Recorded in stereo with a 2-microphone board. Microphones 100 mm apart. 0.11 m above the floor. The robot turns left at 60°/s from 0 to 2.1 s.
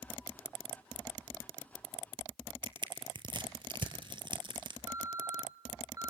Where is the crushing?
55° right (ahead or behind), 1.0 m.